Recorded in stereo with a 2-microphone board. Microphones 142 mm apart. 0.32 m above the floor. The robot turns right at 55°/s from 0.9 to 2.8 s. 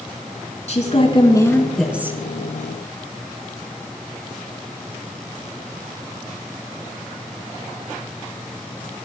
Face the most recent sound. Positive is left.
turn(degrees=-125)